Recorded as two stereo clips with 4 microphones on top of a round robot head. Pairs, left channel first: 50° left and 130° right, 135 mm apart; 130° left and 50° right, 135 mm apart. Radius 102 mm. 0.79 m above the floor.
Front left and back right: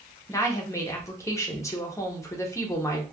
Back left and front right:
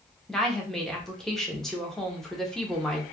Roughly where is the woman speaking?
Ahead left.